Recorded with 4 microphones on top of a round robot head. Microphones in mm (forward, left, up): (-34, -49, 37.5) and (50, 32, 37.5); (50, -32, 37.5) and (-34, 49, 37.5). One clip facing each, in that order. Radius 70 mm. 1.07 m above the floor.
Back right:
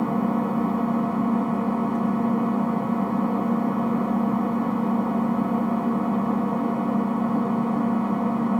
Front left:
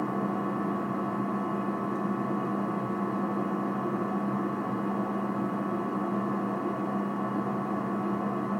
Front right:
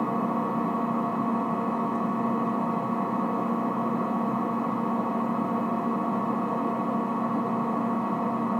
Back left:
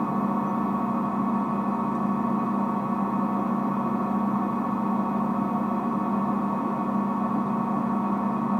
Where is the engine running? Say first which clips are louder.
Back right 7 dB, back left 1 dB; 140° right, 1.7 m.